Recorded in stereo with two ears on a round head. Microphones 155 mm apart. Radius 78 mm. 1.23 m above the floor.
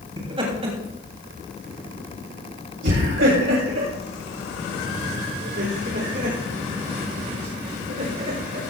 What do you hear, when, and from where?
0.2 s laughter: 25° right (ahead or behind), 3 m; by 8.7 s 55° right (ahead or behind), 6 m